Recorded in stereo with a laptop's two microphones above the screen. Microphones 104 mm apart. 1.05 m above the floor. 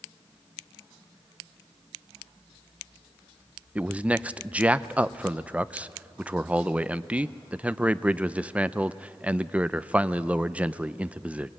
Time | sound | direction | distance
3.8 | a man speaking | 15° right (ahead or behind) | 0.6 m